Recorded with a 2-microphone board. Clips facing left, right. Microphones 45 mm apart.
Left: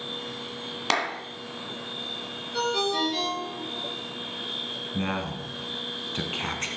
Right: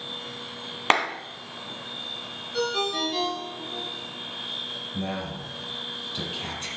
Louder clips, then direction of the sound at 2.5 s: Left 1 dB; centre (ahead or behind).